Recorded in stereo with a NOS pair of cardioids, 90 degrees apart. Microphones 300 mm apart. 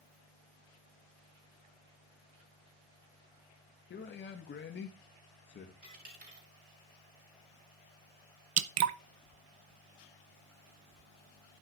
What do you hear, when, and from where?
3.9 s a man speaking: 40° left, 1.9 m
5.8 s a dropped coin: 30° right, 6.5 m
8.6 s dripping: 60° right, 0.8 m